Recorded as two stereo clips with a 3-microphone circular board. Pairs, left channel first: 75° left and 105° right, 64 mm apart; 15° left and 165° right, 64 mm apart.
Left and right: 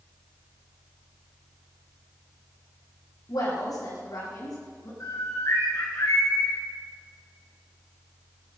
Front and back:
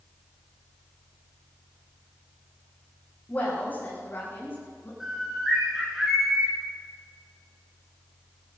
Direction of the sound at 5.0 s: 110° left.